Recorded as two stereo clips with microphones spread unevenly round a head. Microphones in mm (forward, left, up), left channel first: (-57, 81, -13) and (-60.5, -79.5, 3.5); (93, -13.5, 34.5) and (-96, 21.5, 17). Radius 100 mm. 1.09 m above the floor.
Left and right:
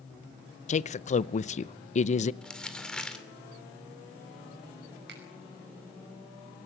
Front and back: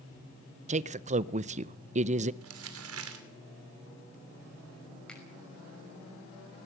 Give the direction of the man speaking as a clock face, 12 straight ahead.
8 o'clock.